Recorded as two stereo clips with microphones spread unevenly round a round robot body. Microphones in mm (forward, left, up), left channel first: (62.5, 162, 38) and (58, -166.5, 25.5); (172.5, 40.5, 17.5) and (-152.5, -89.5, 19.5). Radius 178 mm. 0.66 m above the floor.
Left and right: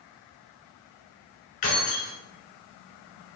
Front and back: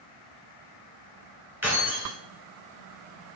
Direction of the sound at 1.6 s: 115° left.